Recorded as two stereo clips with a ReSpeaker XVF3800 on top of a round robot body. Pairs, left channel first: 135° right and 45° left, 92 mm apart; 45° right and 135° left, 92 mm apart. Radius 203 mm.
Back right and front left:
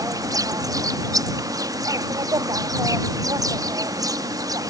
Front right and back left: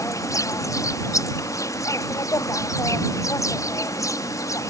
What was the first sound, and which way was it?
An insect, 5° left.